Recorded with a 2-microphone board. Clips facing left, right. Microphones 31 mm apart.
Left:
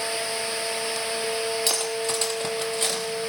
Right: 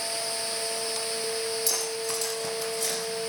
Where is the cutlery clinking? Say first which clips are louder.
Left 4 dB; 55° left (ahead or behind), 3.5 m.